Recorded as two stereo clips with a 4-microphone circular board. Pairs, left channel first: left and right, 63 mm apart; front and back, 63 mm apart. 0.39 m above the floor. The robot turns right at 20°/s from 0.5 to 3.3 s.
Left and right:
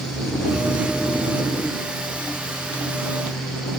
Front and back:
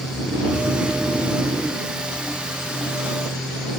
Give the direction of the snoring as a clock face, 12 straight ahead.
7 o'clock.